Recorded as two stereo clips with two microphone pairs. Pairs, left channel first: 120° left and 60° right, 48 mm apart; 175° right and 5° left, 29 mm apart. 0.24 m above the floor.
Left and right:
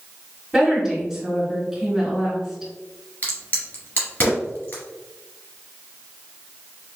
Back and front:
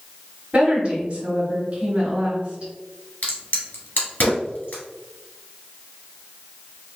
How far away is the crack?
About 1.6 m.